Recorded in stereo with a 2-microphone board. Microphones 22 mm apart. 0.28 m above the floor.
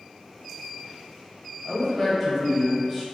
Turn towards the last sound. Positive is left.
turn(degrees=5)  # may be behind; listen again after turning